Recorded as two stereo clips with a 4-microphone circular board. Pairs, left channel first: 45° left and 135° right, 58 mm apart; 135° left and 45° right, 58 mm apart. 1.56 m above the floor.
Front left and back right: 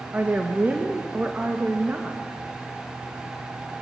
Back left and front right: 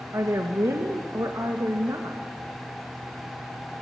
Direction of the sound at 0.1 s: 70° right.